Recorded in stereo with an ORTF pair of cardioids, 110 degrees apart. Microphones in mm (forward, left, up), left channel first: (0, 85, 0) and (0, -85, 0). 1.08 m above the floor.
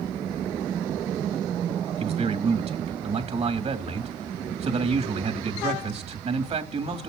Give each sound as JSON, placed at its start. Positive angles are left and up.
{"t": 2.0, "sound": "a man speaking", "azimuth_deg": -40, "distance_m": 2.5}